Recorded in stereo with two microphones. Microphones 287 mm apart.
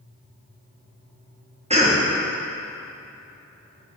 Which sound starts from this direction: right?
A cough, at 1.7 s.